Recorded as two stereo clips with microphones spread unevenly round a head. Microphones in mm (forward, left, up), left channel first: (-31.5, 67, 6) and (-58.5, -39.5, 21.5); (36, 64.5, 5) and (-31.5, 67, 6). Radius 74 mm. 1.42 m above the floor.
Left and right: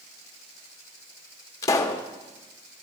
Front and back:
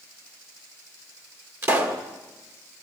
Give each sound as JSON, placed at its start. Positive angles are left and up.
{"t": 1.6, "sound": "a pop", "azimuth_deg": 135, "distance_m": 1.7}